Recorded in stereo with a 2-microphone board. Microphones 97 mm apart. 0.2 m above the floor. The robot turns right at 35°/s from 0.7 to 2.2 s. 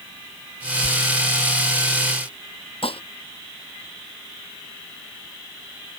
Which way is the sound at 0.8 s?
50° right (ahead or behind).